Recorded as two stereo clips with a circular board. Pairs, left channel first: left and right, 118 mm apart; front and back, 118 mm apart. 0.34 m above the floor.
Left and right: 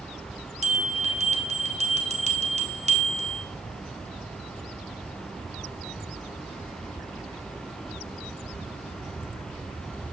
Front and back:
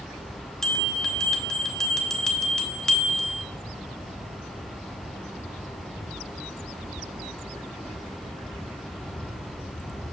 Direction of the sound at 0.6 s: 85° right.